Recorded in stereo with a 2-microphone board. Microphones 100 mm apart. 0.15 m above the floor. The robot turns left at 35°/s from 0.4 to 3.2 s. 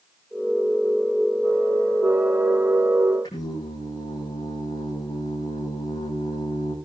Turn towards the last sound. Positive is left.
turn(degrees=40)  # may be behind; listen again after turning